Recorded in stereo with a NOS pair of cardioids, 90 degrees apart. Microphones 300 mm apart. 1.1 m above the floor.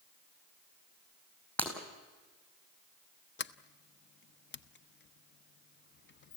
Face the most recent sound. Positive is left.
turn(degrees=35)